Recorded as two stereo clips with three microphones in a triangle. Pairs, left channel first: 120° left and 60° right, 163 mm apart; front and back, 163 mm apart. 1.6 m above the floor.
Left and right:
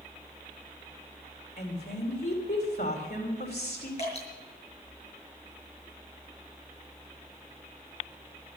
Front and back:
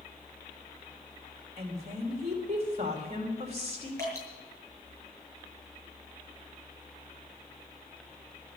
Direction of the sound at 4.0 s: 70° left.